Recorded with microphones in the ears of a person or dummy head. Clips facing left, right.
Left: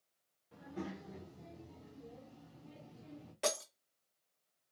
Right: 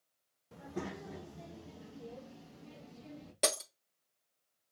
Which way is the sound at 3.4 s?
60° right (ahead or behind).